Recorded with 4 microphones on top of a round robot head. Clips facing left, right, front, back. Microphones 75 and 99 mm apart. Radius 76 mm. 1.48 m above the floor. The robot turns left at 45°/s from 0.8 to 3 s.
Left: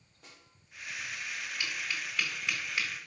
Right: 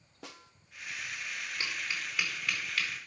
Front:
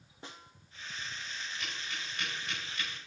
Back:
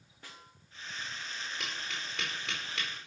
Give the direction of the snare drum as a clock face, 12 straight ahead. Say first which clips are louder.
Right 8 dB, front 3 dB; 2 o'clock.